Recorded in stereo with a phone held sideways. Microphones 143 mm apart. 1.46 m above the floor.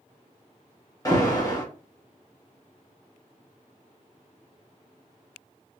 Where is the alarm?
25° left (ahead or behind), 1.1 m.